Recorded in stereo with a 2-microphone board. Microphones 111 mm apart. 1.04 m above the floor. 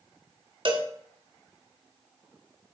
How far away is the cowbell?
About 1.2 m.